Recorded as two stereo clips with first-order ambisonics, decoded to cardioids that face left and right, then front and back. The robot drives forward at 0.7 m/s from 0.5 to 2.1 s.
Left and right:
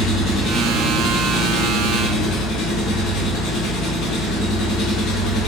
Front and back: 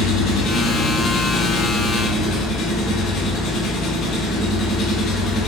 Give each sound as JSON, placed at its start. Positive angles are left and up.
{"t": 0.0, "sound": "an engine running", "azimuth_deg": 45, "distance_m": 4.5}